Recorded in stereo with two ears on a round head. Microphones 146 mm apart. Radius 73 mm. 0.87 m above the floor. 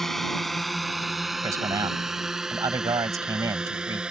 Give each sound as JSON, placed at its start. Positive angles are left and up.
{"t": 0.0, "sound": "a drone", "side_deg": 0}
{"t": 1.4, "sound": "a man speaking", "side_deg": -20}